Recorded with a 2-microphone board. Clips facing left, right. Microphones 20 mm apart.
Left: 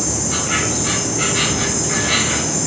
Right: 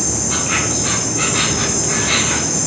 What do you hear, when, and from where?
0.0 s an insect: 65° right (ahead or behind), 4 m